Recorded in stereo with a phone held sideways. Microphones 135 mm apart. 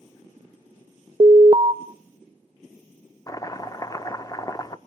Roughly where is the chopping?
Left.